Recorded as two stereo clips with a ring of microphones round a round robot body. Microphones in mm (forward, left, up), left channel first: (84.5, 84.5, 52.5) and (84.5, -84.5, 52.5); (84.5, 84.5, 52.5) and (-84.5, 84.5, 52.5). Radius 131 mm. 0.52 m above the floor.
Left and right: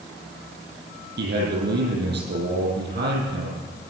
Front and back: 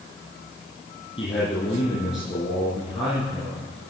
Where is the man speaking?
70° right, 7.5 m.